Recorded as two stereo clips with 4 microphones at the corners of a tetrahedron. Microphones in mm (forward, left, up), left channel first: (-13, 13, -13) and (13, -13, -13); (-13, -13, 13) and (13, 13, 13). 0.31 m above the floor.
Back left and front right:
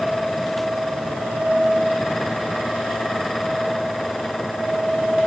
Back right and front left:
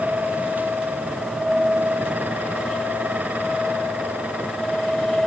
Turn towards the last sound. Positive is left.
No sound to turn to.